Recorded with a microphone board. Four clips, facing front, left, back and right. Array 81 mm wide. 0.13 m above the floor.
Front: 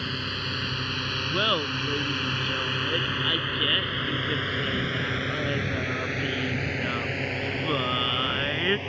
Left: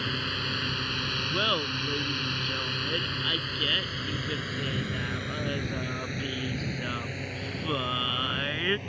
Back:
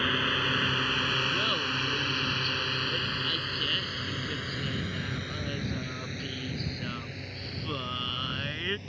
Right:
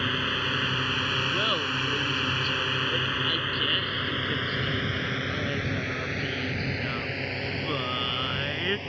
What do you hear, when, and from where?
0.0 s a drone: 145° right; by 8.9 s 15° right
1.3 s laughter: 5° left